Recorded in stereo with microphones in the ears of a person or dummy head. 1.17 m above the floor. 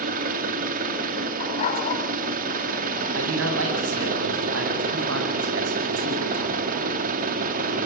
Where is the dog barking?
45° left (ahead or behind), 4 m.